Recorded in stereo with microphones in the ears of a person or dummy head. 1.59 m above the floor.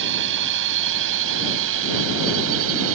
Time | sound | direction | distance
0.0 | a drone | 65° right (ahead or behind) | ?